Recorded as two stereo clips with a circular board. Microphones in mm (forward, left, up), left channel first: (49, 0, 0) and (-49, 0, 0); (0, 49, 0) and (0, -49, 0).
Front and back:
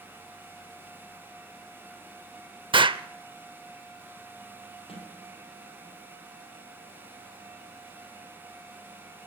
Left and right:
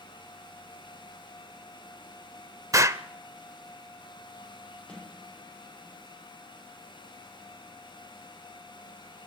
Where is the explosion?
150° right, 0.7 m.